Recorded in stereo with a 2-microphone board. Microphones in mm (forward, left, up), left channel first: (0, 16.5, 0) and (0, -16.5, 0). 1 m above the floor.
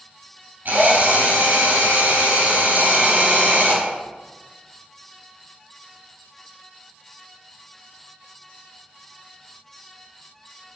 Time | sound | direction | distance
0.7 | a drill | 75° right (ahead or behind) | 3.5 m